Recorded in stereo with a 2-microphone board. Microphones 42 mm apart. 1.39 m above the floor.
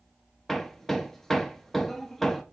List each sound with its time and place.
0.5 s hammering: 5° left (ahead or behind), 1.0 m